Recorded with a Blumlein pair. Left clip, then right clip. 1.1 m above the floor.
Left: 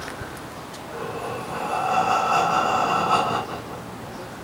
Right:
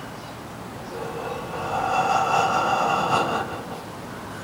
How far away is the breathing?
About 5 m.